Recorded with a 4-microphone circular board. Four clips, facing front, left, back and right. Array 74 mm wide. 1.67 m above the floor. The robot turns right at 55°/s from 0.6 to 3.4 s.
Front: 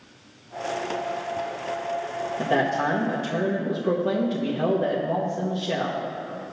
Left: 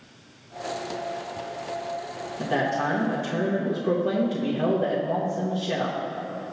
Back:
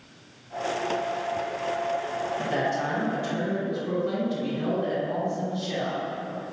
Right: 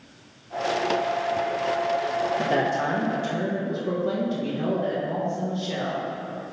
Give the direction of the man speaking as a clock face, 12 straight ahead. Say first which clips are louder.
Left 3 dB, front 6 dB; 1 o'clock.